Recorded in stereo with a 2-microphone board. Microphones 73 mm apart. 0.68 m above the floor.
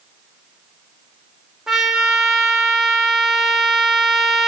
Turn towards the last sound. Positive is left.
turn(degrees=-5)  # may be behind; listen again after turning